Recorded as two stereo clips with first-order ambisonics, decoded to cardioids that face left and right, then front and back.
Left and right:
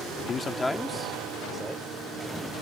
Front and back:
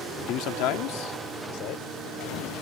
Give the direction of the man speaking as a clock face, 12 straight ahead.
11 o'clock.